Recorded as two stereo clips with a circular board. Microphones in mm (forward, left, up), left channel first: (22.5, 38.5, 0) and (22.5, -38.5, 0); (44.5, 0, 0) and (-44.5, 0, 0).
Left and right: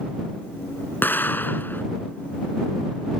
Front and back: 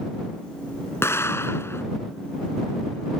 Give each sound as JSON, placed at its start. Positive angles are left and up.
{"t": 1.0, "sound": "an explosion", "azimuth_deg": 45}